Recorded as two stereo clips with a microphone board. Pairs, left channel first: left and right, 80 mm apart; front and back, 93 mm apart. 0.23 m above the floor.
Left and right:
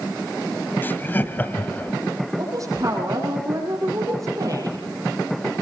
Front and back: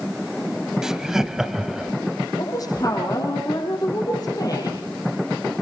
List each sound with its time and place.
0.8 s laughter: 105° left, 1.1 m
2.4 s a woman speaking: 50° right, 6 m